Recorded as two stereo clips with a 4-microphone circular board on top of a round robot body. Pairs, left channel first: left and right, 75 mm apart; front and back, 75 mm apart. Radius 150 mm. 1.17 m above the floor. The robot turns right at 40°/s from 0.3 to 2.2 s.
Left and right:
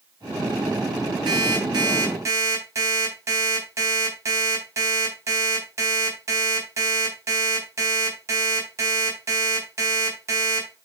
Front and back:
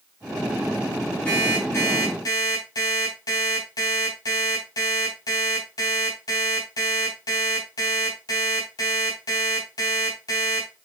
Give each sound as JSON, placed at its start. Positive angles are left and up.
{"t": 1.3, "sound": "an alarm clock", "azimuth_deg": -75, "distance_m": 3.5}